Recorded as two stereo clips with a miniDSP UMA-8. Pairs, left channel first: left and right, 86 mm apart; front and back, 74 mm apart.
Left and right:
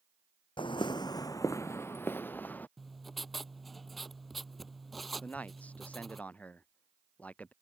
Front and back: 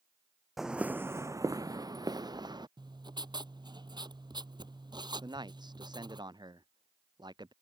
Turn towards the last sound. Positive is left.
turn(degrees=165)